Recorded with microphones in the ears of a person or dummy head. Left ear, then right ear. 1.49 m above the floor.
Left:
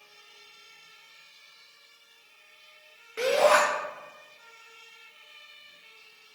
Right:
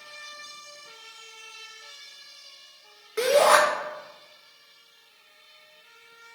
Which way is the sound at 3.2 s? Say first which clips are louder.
Right 3 dB; 20° right (ahead or behind).